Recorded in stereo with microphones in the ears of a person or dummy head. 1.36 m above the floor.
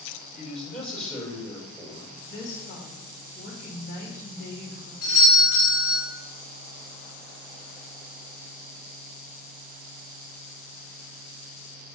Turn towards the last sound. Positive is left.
turn(degrees=55)  # may be behind; listen again after turning